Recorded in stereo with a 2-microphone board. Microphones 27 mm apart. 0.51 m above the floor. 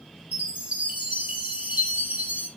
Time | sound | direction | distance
0.3 | a chime | 45° right (ahead or behind) | 2.5 m